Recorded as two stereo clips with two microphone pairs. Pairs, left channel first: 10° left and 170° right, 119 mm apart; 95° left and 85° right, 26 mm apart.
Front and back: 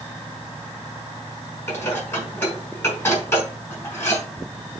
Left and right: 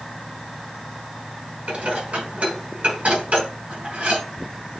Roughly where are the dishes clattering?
Ahead right.